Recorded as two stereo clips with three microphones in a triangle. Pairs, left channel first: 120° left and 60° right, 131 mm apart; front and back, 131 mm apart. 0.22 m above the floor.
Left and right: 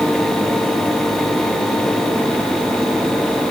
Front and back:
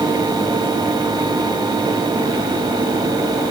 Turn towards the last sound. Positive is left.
No sound to turn to.